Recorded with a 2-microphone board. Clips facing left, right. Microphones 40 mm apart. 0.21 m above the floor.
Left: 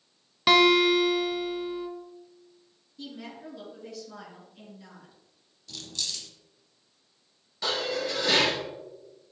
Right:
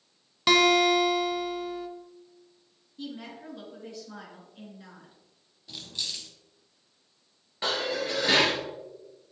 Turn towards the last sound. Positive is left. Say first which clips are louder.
# even
turn(degrees=-30)  # may be behind; listen again after turning